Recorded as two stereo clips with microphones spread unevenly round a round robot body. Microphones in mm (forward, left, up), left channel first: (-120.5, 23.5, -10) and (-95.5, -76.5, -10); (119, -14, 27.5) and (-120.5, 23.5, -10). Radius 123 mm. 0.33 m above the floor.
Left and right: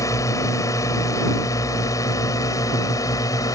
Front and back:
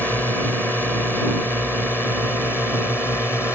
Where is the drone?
85° left; by 3.6 s 80° left.